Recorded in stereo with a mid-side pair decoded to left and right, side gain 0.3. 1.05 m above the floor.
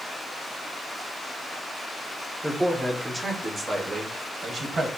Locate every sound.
2.4 s a man speaking: 20° right, 1.8 m; by 4.9 s 70° right, 1.2 m